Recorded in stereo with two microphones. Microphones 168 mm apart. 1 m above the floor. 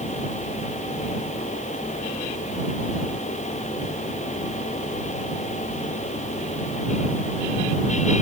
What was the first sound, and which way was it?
Only background noise.